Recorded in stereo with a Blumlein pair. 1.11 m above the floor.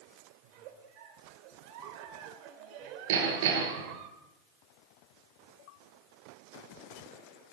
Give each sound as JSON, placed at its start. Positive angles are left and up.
{"t": 0.4, "sound": "a giggle", "azimuth_deg": -40, "distance_m": 3.5}
{"t": 3.1, "sound": "hammering", "azimuth_deg": -55, "distance_m": 8.5}